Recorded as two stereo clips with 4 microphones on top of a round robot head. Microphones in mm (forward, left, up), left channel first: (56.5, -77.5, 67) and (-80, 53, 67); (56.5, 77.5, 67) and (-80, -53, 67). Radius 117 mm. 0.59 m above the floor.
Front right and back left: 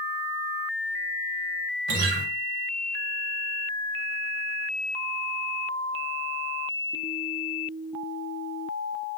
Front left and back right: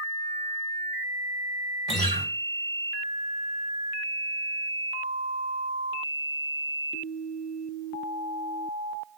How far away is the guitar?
About 0.8 m.